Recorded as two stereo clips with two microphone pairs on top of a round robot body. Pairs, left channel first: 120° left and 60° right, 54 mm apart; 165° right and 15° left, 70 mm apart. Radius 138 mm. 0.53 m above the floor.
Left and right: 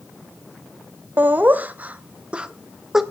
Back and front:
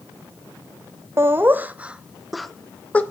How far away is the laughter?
About 1.3 m.